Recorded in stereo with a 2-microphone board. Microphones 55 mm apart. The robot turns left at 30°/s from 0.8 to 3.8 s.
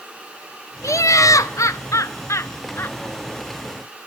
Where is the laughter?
105° left, 0.6 m; by 3.0 s 45° left, 0.6 m.